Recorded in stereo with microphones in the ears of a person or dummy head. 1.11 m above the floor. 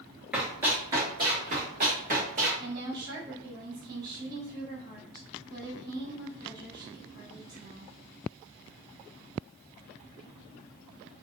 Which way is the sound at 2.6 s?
20° right (ahead or behind).